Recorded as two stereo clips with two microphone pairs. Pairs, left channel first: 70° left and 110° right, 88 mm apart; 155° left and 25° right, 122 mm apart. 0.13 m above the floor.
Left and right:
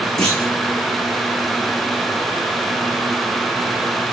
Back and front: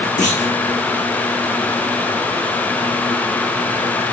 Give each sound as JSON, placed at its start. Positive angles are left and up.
{"t": 0.2, "sound": "a clunk", "azimuth_deg": 155, "distance_m": 3.0}